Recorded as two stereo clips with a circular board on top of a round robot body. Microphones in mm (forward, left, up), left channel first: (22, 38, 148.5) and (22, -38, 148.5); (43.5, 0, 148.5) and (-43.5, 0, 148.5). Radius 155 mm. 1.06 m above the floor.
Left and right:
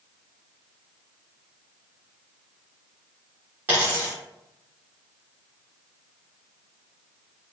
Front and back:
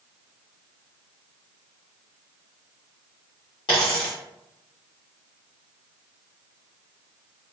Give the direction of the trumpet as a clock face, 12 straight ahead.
No trumpet in this recording.